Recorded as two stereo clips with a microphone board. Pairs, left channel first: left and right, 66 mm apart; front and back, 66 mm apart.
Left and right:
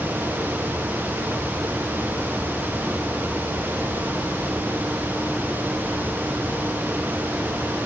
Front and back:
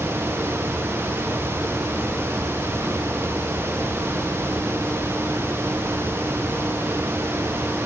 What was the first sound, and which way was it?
Only background noise.